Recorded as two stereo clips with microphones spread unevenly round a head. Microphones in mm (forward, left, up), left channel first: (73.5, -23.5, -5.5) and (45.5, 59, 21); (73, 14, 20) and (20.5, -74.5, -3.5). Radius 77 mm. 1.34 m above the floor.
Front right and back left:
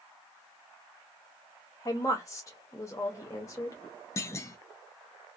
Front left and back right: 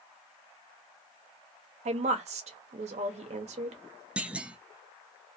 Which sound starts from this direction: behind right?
A woman speaking, at 1.9 s.